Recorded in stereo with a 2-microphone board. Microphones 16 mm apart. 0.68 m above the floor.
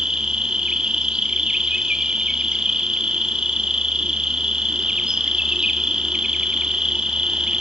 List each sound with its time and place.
0.0 s an insect: 60° right (ahead or behind), 1.3 m